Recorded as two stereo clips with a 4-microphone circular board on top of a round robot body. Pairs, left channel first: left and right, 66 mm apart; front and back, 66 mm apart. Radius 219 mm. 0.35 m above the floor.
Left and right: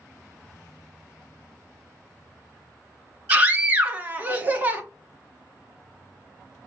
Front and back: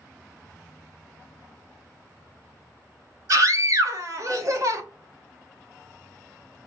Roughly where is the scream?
Behind right.